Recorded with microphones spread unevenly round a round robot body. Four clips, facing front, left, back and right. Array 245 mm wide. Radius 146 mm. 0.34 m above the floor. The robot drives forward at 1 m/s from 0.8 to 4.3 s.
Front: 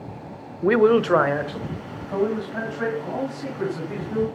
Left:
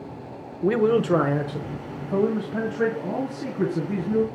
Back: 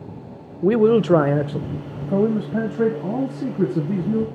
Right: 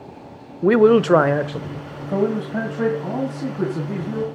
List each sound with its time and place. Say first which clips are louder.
0.6 s a man speaking: right 7 dB, back 1 dB; 105° right, 0.9 m; by 4.2 s 175° right, 3.5 m